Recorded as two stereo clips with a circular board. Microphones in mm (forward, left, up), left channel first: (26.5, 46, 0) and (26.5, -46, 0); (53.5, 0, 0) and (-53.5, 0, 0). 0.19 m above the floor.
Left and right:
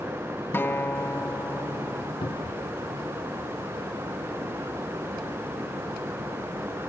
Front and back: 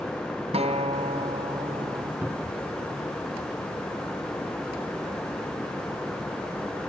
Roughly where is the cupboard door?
Left.